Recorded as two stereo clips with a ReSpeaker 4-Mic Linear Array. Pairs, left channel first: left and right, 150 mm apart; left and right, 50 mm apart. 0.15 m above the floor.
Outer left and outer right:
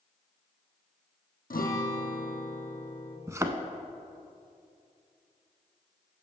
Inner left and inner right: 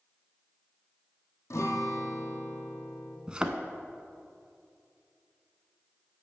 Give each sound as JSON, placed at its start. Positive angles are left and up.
{"t": 1.5, "sound": "a guitar", "side_deg": 75, "distance_m": 1.1}
{"t": 3.3, "sound": "a thud", "side_deg": -20, "distance_m": 0.6}